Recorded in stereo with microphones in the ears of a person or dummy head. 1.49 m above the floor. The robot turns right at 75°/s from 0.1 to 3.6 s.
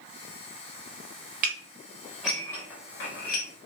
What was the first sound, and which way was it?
Dishes clattering, 45° right (ahead or behind).